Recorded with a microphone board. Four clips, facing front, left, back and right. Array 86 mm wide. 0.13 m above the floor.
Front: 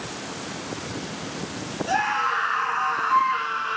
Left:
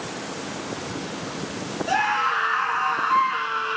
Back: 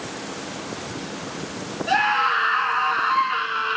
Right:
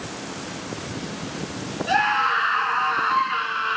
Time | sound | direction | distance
1.9 | a scream | 150° right | 1.2 m